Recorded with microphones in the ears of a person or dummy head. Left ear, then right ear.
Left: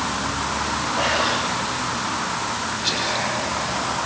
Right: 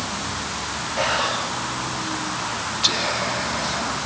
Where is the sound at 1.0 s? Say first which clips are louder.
Even; 80° right, 7.5 m.